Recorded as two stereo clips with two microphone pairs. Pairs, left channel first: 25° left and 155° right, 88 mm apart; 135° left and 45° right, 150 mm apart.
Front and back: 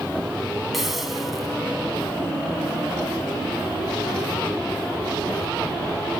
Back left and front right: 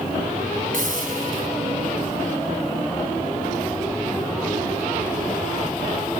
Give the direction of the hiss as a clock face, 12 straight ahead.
2 o'clock.